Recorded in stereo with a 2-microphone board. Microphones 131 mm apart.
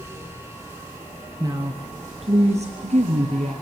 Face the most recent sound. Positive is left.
turn(degrees=-65)  # may be behind; listen again after turning